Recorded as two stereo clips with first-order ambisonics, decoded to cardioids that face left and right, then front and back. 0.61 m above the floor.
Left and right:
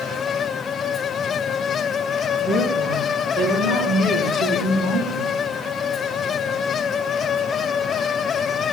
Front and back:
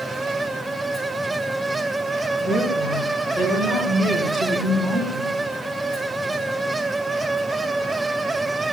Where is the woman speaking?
60° right, 6 m; by 5.4 s 80° right, 5 m.